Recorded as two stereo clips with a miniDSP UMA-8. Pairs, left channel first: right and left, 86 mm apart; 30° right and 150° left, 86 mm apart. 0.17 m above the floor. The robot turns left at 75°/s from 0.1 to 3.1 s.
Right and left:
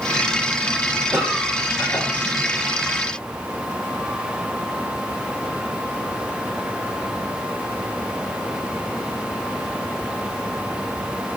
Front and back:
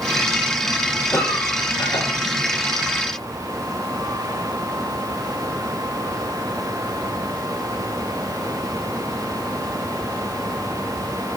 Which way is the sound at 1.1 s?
25° left.